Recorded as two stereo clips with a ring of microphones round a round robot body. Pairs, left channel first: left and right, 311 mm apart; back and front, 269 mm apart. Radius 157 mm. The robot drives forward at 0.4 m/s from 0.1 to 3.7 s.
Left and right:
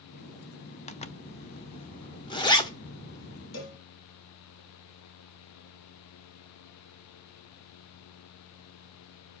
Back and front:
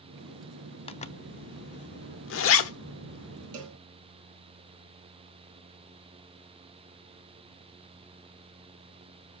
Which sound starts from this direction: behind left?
A zipper, at 0.9 s.